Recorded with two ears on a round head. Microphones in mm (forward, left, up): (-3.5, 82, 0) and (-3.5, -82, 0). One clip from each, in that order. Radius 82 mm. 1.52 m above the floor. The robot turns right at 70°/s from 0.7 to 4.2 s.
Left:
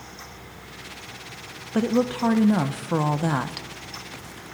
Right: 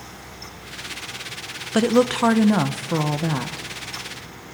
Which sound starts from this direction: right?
A woman speaking, at 1.7 s.